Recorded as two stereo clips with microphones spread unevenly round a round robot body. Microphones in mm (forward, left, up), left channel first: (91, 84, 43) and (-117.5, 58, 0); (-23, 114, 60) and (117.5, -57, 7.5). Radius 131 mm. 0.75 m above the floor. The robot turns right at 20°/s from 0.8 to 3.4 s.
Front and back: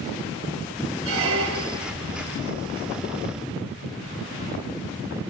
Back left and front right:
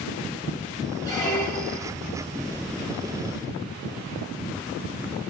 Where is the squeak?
170° right, 0.8 m; by 1.9 s 150° right, 0.8 m.